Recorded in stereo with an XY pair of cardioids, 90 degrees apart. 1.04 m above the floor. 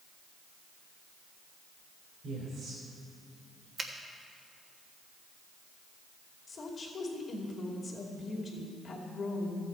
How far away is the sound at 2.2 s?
About 3 m.